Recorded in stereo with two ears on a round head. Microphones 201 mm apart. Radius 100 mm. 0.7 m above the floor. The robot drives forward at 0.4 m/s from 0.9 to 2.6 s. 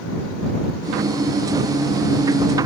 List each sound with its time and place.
Only background noise.